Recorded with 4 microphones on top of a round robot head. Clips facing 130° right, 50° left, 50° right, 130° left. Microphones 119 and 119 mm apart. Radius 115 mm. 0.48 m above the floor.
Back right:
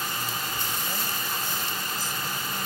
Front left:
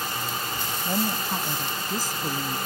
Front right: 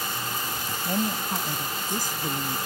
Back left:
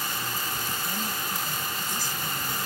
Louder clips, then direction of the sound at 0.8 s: Front left 6 dB, front right 6 dB; 10° right.